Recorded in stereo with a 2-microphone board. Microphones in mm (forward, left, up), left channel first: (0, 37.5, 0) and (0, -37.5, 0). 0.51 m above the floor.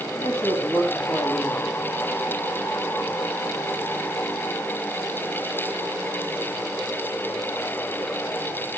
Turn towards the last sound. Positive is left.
turn(degrees=50)  # may be behind; listen again after turning